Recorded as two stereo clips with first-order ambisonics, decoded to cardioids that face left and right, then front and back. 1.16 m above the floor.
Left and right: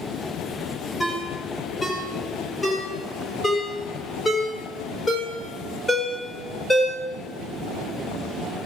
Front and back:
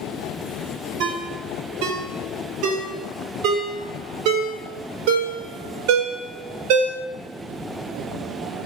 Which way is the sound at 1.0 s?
170° left.